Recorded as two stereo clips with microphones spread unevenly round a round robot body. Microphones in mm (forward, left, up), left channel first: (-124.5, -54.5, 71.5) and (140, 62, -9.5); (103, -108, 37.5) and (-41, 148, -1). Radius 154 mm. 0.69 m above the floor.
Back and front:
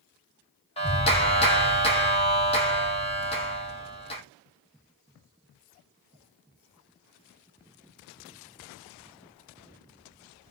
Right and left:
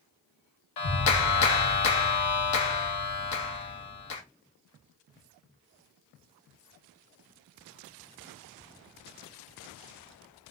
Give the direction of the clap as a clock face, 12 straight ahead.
3 o'clock.